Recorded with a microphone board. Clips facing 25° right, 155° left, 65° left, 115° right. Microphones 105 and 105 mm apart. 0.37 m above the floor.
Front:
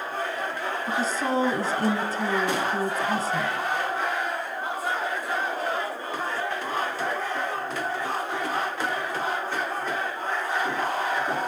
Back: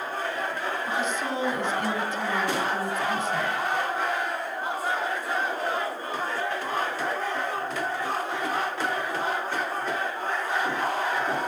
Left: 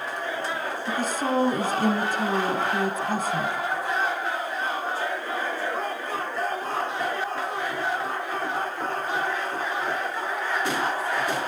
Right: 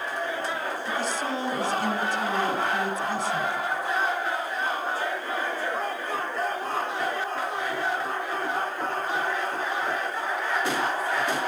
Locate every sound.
0.9 s a woman speaking: 30° left, 2.5 m